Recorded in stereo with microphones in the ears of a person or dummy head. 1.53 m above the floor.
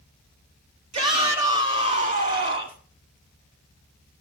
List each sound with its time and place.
0.9 s a shout: 35° right (ahead or behind), 4 m; by 2.8 s 40° right (ahead or behind), 5.5 m